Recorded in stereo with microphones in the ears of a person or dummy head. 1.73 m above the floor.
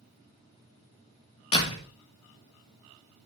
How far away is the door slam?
About 2 m.